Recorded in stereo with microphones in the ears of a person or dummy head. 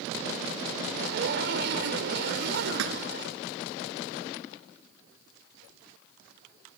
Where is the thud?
70° right (ahead or behind).